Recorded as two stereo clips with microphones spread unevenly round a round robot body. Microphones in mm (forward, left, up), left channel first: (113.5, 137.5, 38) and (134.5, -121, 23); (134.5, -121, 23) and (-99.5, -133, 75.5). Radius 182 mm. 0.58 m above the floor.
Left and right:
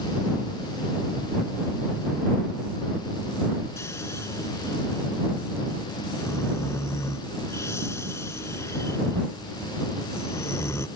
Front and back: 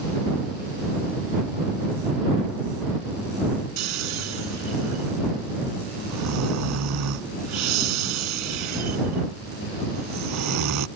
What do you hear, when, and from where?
3.8 s snoring: 175° left